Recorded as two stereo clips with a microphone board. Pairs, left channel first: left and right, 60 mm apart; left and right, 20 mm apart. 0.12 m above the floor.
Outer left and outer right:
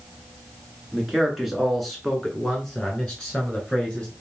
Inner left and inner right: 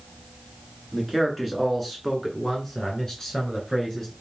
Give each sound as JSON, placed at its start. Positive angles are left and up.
{"t": 0.9, "sound": "a man speaking", "side_deg": -5, "distance_m": 1.7}